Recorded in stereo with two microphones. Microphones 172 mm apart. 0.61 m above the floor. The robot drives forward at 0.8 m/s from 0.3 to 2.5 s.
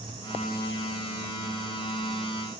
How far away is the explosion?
I don't hear an explosion.